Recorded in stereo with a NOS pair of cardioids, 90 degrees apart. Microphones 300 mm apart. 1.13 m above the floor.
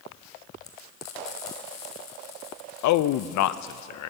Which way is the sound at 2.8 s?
70° left.